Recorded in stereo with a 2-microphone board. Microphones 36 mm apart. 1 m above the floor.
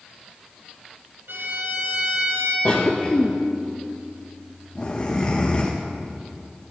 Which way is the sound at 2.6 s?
30° left (ahead or behind).